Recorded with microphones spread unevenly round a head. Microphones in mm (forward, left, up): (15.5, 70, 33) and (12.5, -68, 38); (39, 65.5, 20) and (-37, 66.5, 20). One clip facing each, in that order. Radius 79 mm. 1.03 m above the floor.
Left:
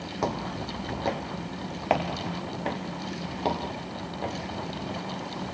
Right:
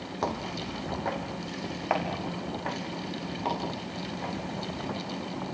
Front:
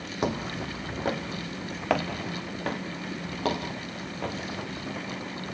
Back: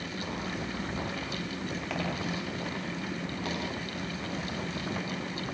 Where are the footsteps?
10° left, 3.5 m; by 4.3 s 35° left, 6.5 m.